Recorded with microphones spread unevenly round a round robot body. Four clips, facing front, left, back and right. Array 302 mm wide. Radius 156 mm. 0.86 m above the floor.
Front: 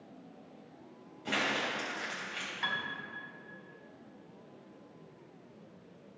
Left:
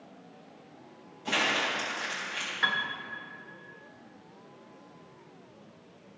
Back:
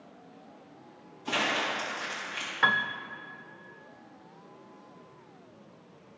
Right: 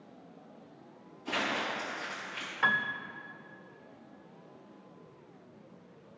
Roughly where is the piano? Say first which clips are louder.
Right 2 dB, back 11 dB; behind.